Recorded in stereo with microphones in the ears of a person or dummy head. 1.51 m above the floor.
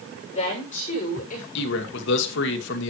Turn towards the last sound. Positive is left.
turn(degrees=70)  # may be behind; listen again after turning